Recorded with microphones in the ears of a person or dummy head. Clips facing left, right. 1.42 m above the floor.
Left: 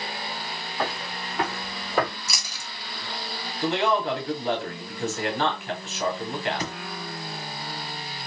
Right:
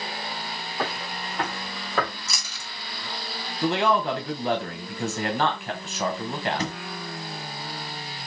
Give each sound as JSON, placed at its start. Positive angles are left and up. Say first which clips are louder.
{"t": 0.8, "sound": "footsteps", "louder": "left 1 dB", "side_deg": -5, "distance_m": 2.0}
{"t": 2.3, "sound": "chewing", "louder": "left 1 dB", "side_deg": 10, "distance_m": 1.4}
{"t": 3.6, "sound": "a man speaking", "louder": "right 1 dB", "side_deg": -50, "distance_m": 1.0}
{"t": 6.6, "sound": "a thud", "louder": "right 2 dB", "side_deg": -30, "distance_m": 2.0}